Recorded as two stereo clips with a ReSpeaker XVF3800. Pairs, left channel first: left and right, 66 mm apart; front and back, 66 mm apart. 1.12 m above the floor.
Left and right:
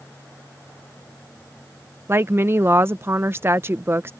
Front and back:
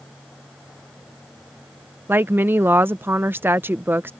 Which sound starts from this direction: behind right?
A woman speaking, at 2.1 s.